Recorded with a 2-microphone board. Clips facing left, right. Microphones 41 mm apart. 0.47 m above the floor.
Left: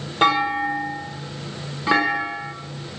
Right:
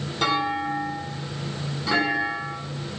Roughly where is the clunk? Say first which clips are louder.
Left 5 dB; left.